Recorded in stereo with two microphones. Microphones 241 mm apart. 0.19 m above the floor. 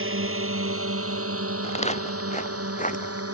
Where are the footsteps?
30° left (ahead or behind); by 3.2 s 35° left (ahead or behind).